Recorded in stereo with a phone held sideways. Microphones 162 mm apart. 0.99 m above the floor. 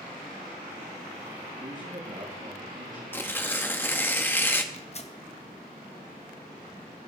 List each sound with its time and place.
1.5 s a man speaking: 50° right (ahead or behind), 1.9 m
3.1 s tearing paper: 10° left (ahead or behind), 0.6 m
4.7 s tearing paper: 40° left (ahead or behind), 0.8 m